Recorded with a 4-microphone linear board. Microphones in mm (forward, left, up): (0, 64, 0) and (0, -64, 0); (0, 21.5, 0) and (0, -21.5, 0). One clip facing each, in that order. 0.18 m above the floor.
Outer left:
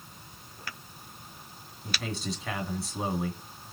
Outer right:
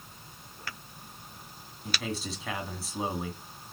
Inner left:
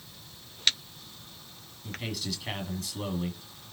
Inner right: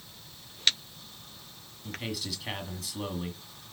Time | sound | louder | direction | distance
1.8 | a man speaking | even, even | centre (ahead or behind) | 1.8 m